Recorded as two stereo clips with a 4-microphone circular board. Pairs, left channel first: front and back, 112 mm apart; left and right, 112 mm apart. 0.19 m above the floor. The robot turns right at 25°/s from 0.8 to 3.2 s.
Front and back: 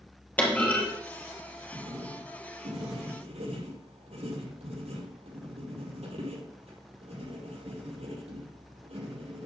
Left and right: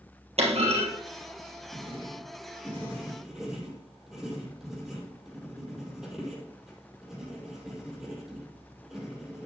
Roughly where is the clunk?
Right.